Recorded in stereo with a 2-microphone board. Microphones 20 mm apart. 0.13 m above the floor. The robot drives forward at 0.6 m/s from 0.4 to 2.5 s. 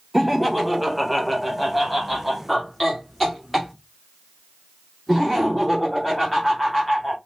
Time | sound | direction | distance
0.1 | laughter | centre (ahead or behind) | 1.2 m